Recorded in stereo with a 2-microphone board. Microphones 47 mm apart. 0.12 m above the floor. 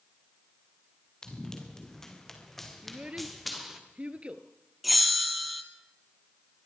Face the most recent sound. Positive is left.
turn(degrees=0)  # may be behind; listen again after turning